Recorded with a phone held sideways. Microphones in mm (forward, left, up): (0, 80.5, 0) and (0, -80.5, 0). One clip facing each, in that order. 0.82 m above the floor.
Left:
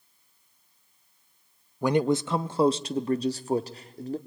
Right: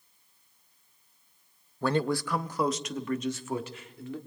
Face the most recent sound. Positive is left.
turn(degrees=35)  # may be behind; listen again after turning